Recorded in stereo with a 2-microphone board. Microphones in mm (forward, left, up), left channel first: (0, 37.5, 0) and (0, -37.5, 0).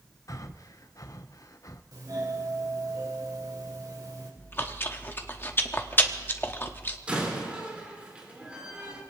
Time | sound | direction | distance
0.3 | breathing | 45° left (ahead or behind) | 0.7 m
1.9 | a doorbell | 55° right (ahead or behind) | 3.5 m
4.4 | chewing | 30° left (ahead or behind) | 1.0 m
7.1 | a door slam | 15° right (ahead or behind) | 4 m